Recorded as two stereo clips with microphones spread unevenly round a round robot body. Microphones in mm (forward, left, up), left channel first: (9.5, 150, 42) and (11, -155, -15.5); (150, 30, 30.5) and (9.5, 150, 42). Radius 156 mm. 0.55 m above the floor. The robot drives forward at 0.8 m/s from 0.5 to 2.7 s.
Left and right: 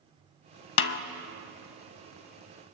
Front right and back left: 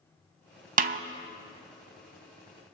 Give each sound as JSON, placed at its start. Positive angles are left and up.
{"t": 0.8, "sound": "a snare drum", "azimuth_deg": 115, "distance_m": 0.5}